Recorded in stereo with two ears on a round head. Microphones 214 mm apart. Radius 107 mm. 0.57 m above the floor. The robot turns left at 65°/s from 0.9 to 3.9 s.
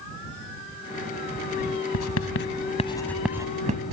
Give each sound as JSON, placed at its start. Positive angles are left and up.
{"t": 1.9, "sound": "writing", "side_deg": 75}